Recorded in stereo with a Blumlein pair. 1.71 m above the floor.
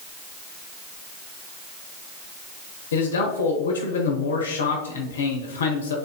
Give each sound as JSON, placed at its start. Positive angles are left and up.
{"t": 2.9, "sound": "a man speaking", "azimuth_deg": 65, "distance_m": 1.1}